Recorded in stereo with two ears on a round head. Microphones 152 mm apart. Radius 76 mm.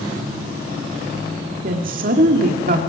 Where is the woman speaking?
50° right (ahead or behind), 1.9 m.